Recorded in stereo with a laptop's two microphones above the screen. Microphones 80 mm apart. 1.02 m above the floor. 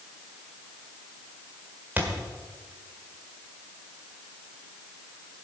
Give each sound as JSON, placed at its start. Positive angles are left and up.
{"t": 2.0, "sound": "a thud", "side_deg": -25, "distance_m": 1.6}